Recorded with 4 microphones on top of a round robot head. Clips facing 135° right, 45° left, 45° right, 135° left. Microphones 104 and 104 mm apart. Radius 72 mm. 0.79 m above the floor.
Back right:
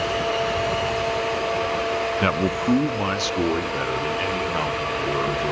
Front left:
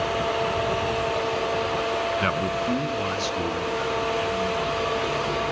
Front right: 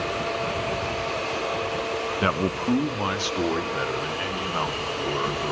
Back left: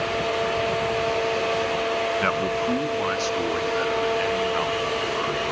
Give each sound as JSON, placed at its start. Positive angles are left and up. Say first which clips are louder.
{"t": 2.2, "sound": "a man speaking", "louder": "back right 3 dB, back left 1 dB", "azimuth_deg": -105, "distance_m": 0.9}